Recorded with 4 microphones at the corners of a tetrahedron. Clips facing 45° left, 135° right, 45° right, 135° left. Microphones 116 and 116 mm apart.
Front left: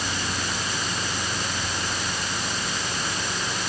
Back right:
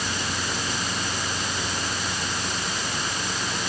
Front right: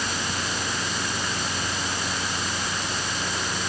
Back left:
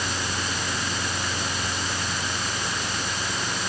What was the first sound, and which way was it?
Only background noise.